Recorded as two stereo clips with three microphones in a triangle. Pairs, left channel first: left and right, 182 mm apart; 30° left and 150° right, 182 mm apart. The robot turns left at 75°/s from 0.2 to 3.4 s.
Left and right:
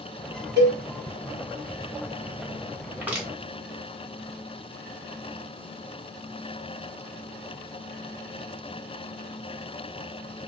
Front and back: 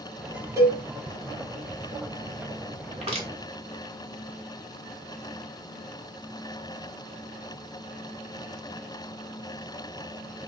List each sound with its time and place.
0.6 s a cowbell: 75° right, 1.0 m; by 0.8 s 90° right, 1.0 m
2.9 s crushing: 150° right, 1.0 m; by 3.3 s straight behind, 1.0 m